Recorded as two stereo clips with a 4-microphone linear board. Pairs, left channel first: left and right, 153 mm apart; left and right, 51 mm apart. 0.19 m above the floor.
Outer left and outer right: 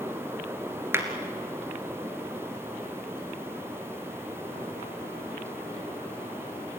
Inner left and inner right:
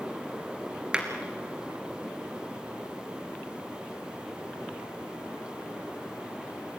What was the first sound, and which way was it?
A clap, 15° right (ahead or behind).